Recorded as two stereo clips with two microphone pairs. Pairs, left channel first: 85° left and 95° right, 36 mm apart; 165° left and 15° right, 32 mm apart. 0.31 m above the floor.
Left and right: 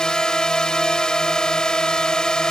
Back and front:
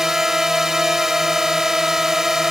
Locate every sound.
0.0 s a drone: 45° left